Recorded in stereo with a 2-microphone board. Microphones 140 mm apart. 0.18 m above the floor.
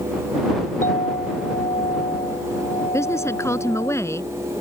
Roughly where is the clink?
Left.